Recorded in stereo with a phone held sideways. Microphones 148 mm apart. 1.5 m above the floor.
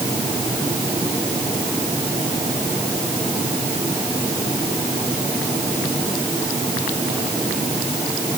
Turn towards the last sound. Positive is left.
No sound to turn to.